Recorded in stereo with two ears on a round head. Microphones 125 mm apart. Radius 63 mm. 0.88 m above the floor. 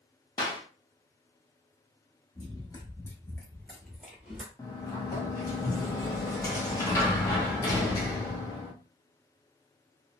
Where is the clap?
30° left (ahead or behind), 0.7 m.